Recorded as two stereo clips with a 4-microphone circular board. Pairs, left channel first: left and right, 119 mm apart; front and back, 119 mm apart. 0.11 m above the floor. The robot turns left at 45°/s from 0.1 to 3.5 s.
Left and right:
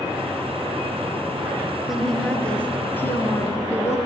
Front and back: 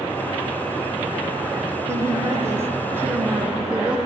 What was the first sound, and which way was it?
A woman speaking, 175° right.